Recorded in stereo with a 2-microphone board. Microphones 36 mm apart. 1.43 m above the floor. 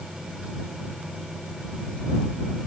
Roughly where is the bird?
No bird in this recording.